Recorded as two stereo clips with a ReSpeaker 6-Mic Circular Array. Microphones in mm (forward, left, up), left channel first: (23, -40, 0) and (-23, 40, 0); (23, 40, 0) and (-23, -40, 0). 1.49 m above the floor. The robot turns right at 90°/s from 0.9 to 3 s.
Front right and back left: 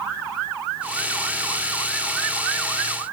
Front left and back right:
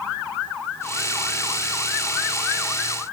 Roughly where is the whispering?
No whispering in this recording.